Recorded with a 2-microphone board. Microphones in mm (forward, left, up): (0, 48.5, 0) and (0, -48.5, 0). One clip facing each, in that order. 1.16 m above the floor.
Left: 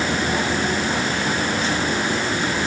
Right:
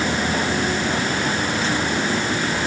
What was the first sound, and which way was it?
Only background noise.